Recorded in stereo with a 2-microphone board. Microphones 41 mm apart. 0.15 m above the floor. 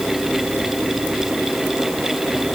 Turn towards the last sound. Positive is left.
No sound to turn to.